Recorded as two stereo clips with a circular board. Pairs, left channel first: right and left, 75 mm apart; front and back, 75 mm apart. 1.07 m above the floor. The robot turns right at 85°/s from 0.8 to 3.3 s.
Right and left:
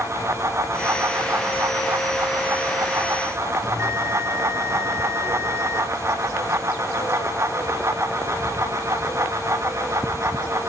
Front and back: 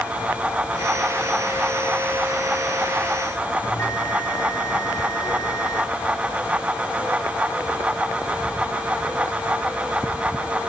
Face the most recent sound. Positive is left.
turn(degrees=40)